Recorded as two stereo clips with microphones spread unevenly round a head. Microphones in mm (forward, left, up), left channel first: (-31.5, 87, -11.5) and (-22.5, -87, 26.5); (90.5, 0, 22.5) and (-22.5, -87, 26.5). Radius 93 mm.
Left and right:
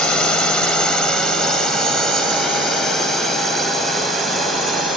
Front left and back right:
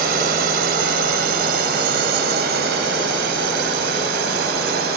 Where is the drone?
Straight behind; by 5.0 s 175° right.